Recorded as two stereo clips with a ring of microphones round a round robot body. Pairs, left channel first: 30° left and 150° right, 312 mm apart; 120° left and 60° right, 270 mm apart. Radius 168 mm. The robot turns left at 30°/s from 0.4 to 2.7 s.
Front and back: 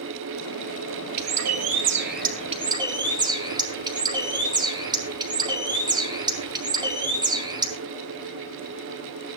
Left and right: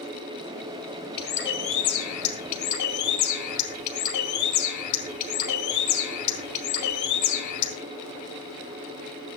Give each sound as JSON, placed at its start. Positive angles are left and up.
{"t": 1.2, "sound": "a bird", "azimuth_deg": 180, "distance_m": 2.0}